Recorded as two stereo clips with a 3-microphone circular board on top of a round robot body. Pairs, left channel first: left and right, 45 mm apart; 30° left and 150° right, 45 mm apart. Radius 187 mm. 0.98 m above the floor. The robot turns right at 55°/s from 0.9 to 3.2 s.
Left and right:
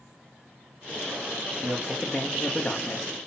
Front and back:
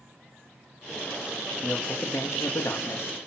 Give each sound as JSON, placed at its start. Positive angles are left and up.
{"t": 1.6, "sound": "a man speaking", "azimuth_deg": -35, "distance_m": 1.8}